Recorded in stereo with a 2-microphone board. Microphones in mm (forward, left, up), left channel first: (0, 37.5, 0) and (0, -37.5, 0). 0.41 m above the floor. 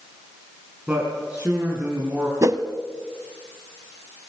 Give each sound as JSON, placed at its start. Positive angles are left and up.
{"t": 0.9, "sound": "a man speaking", "side_deg": -15, "distance_m": 4.5}
{"t": 2.4, "sound": "a whoosh", "side_deg": -45, "distance_m": 0.9}